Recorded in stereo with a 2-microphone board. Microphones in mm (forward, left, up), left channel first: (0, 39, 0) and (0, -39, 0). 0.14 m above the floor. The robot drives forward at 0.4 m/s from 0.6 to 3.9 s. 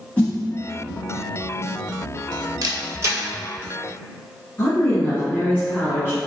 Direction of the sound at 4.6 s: 30° left (ahead or behind).